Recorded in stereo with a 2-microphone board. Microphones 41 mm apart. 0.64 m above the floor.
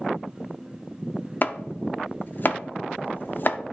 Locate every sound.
1.4 s chopping: 45° left (ahead or behind), 0.5 m